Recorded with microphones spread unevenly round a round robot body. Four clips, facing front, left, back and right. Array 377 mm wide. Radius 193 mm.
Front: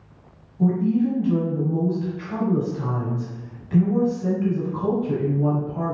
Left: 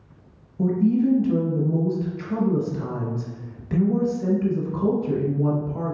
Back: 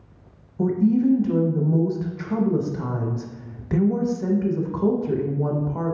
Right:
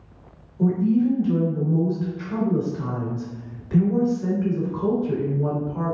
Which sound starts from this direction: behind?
A woman speaking, at 0.6 s.